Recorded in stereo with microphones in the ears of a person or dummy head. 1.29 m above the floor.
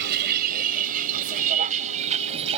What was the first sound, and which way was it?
A vehicle, 50° right (ahead or behind).